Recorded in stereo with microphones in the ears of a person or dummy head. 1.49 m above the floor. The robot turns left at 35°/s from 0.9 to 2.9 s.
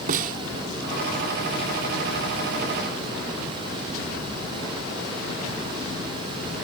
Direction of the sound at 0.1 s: 45° right (ahead or behind).